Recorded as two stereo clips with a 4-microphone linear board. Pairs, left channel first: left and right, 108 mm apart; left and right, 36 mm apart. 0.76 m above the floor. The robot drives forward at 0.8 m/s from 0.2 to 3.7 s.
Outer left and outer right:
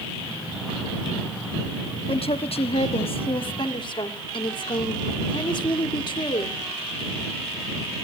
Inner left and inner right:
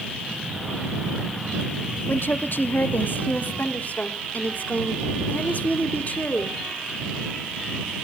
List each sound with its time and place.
2.1 s a woman speaking: 60° left (ahead or behind), 1.2 m; by 6.6 s 45° left (ahead or behind), 1.5 m